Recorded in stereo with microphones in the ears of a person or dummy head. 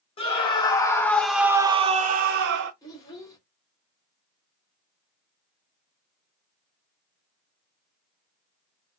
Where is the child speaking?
20° left (ahead or behind), 1.1 m.